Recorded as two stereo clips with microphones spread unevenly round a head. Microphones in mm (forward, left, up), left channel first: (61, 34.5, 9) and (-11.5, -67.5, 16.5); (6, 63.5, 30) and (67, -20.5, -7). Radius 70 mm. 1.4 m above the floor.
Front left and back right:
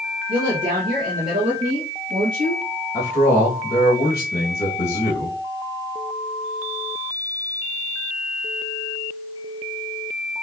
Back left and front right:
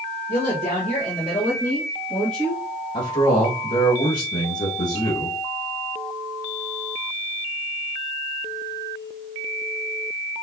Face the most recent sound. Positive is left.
turn(degrees=130)